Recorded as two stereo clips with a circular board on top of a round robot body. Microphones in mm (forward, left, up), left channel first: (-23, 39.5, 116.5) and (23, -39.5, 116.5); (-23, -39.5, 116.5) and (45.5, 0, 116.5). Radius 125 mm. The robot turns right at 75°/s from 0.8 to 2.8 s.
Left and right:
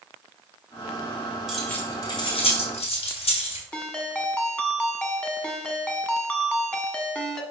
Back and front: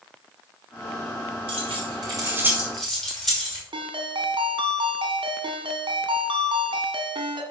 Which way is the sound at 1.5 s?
25° left.